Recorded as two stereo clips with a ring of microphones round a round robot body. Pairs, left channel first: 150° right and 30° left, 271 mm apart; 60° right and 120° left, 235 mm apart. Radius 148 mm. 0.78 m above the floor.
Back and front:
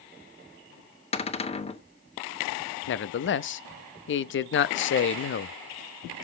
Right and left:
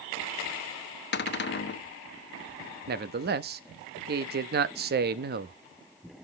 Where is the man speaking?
165° left, 0.7 m.